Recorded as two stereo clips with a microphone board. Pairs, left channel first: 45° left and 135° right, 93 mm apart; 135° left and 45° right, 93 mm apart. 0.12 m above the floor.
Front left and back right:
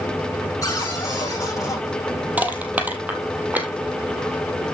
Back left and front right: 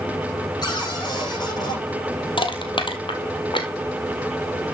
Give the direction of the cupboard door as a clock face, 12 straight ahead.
9 o'clock.